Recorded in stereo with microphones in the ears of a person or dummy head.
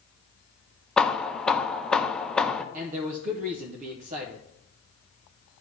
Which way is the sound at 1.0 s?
5° left (ahead or behind).